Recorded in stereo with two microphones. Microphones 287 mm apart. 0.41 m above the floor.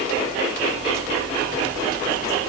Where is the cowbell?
I don't hear a cowbell.